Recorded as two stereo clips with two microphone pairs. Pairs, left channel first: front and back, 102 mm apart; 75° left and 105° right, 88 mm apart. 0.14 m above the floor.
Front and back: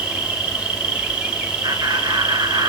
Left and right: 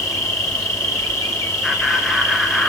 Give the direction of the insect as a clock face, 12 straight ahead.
4 o'clock.